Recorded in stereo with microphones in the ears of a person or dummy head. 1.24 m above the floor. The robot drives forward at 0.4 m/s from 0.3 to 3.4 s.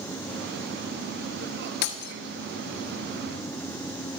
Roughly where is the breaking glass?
Left.